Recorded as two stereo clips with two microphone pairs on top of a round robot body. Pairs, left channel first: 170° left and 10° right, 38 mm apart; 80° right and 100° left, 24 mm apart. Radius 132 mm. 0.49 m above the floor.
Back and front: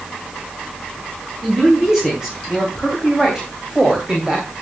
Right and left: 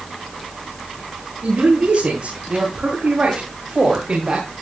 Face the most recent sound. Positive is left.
turn(degrees=55)